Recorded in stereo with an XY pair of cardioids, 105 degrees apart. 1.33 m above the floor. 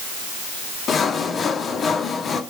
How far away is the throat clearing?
No throat clearing in this recording.